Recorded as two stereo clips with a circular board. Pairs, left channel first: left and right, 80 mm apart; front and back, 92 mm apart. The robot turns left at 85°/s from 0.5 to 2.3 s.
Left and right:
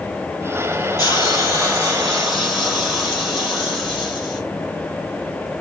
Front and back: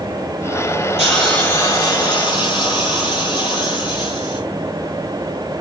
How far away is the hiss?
About 1.9 m.